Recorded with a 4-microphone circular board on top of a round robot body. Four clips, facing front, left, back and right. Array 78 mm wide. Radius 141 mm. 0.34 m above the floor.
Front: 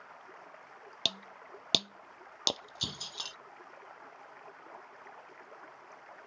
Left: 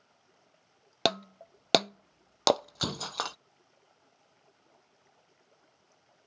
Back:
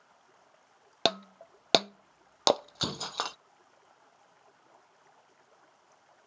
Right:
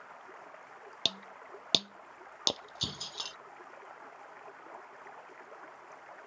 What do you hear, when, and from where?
0.0 s running water: 60° right
1.1 s breaking glass: 135° left